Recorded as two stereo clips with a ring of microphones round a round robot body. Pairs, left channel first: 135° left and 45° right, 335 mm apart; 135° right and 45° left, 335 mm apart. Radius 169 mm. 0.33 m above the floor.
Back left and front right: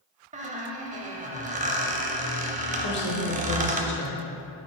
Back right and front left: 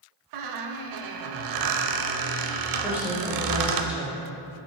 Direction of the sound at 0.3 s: 20° left.